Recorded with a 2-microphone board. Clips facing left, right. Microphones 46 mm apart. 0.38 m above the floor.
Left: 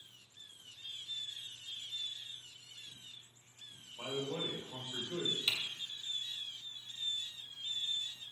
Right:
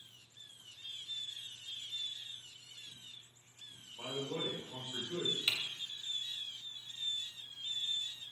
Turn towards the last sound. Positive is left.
turn(degrees=-20)  # may be behind; listen again after turning